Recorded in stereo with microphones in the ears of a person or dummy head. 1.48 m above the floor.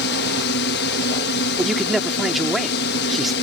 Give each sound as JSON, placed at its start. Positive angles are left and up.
{"t": 0.0, "sound": "a drone", "side_deg": 60}
{"t": 1.6, "sound": "a man speaking", "side_deg": 0}